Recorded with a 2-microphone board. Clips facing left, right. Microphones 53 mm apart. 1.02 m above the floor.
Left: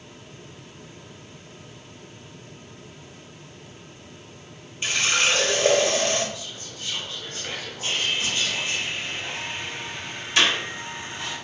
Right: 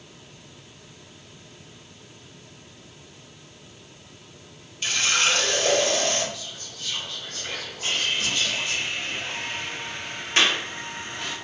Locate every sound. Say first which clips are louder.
4.8 s a running tap: left 1 dB; 20° left (ahead or behind), 0.7 m
6.3 s whispering: left 1 dB; 25° left (ahead or behind), 0.8 m
7.8 s sawing: even; 45° right (ahead or behind), 1.2 m
10.4 s a clap: even; 35° right (ahead or behind), 1.0 m